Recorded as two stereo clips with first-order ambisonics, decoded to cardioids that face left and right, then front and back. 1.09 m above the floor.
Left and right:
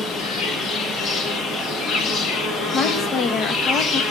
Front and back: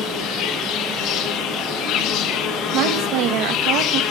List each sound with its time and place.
0.0 s an insect: 35° left, 1.2 m
2.7 s a woman speaking: 150° left, 1.1 m